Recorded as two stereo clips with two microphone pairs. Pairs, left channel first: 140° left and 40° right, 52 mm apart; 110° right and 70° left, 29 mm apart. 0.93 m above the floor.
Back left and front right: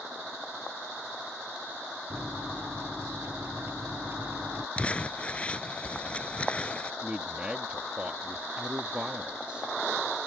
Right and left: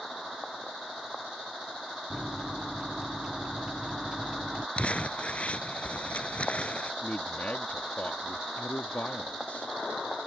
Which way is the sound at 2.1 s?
5° left.